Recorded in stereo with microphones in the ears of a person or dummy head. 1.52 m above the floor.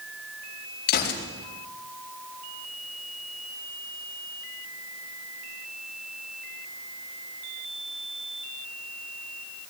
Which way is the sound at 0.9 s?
50° left (ahead or behind).